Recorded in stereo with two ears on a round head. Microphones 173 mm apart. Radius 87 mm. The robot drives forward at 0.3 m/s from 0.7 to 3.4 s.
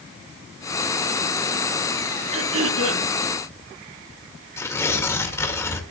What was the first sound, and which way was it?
Throat clearing, 80° right.